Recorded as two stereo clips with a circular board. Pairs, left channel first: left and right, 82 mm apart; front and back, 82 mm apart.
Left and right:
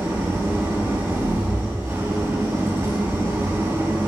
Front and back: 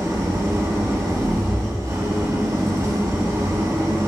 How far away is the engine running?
About 3 m.